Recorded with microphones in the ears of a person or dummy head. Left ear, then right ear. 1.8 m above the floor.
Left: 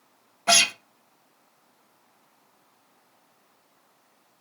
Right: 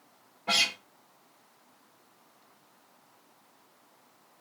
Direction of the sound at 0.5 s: 70° left (ahead or behind).